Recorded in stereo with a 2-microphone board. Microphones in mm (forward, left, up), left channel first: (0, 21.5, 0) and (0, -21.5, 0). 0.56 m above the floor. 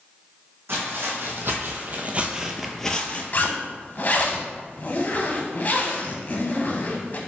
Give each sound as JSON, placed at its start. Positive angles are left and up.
{"t": 0.7, "sound": "footsteps", "side_deg": -65, "distance_m": 1.4}
{"t": 3.3, "sound": "a zipper", "side_deg": 45, "distance_m": 0.7}